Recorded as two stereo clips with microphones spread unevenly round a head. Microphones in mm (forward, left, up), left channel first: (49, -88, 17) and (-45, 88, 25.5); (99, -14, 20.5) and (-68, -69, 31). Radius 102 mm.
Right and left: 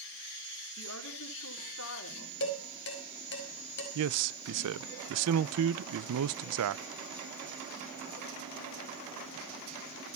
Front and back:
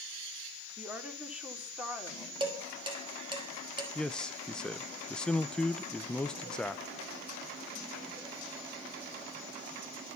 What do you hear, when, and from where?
0.8 s a woman speaking: 75° right, 4.5 m
2.4 s dishes clattering: 100° right, 5.5 m
4.0 s a man speaking: 105° left, 0.6 m